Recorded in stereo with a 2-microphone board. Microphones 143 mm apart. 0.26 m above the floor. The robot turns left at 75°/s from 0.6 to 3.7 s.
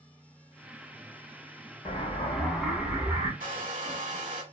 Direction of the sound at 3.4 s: 65° right (ahead or behind).